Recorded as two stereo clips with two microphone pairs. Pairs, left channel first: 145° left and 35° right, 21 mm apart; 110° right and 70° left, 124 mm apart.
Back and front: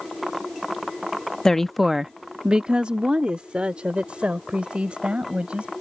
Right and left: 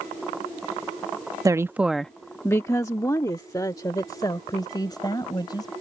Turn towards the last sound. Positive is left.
turn(degrees=-55)